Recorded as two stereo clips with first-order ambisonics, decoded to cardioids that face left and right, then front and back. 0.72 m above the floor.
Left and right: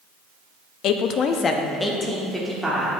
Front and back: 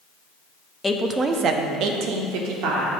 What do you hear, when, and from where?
0.8 s a woman speaking: 80° left, 0.6 m; by 2.9 s 175° right, 1.4 m